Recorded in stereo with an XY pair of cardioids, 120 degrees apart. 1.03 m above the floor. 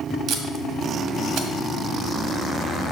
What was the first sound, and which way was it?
Tape being pulled, 65° right.